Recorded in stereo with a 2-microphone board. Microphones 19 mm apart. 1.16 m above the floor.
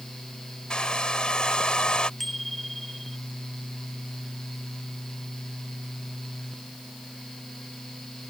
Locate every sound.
0.7 s a hair dryer: 50° left (ahead or behind)
2.2 s a bicycle bell: 5° left (ahead or behind)